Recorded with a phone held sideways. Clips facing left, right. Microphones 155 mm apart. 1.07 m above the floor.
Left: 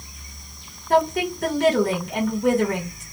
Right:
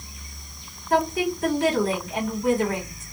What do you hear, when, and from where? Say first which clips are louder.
0.9 s a woman speaking: left 2 dB; 70° left (ahead or behind), 1.2 m